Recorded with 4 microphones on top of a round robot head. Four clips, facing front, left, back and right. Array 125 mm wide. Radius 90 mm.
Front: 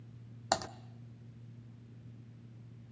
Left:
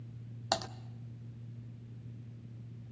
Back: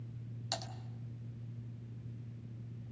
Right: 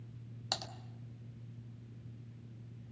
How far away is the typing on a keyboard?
About 0.9 m.